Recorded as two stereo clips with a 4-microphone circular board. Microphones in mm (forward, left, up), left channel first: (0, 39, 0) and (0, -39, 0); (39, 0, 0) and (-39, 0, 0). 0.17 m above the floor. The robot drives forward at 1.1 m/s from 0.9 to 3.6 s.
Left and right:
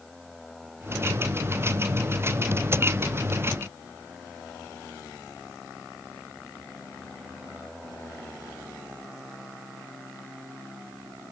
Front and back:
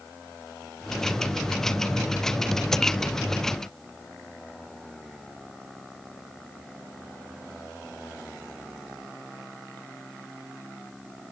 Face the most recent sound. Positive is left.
No sound to turn to.